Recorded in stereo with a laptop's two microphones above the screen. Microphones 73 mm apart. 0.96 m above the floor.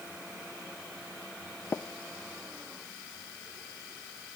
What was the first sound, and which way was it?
Tapping, 35° left (ahead or behind).